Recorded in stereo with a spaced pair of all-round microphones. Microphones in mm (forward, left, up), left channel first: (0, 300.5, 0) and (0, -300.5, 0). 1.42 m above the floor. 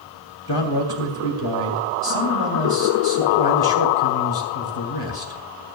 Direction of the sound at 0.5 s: 45° left (ahead or behind).